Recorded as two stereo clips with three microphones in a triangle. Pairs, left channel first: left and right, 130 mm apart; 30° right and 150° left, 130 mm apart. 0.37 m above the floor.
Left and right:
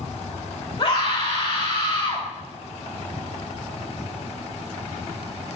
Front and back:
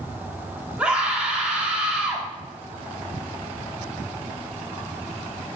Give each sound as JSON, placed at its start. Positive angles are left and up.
{"t": 0.8, "sound": "a scream", "azimuth_deg": 75, "distance_m": 1.8}